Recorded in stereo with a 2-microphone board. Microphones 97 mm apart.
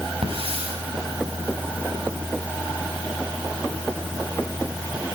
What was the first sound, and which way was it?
A hiss, 75° right (ahead or behind).